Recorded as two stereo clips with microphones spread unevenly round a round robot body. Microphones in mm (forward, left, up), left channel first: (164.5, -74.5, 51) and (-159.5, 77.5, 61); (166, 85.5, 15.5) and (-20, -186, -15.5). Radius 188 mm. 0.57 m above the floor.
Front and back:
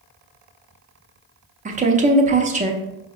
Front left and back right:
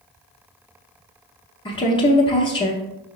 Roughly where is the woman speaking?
Behind left.